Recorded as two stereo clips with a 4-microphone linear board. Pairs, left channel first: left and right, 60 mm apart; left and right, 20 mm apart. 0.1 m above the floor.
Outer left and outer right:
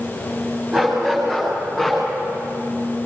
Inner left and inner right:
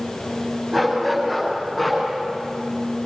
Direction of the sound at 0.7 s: 10° right (ahead or behind).